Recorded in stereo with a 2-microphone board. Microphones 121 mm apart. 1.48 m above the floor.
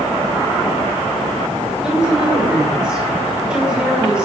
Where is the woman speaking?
5° right (ahead or behind), 6 m.